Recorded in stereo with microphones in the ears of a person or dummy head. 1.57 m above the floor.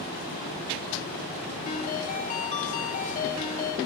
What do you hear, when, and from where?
1.6 s a ringtone: 40° left (ahead or behind), 1.3 m